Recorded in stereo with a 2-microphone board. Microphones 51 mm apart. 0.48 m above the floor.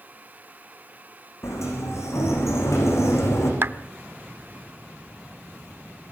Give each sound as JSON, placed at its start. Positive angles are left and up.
{"t": 1.4, "sound": "a sliding door", "side_deg": 65, "distance_m": 7.0}
{"t": 3.6, "sound": "a clap", "side_deg": -45, "distance_m": 0.7}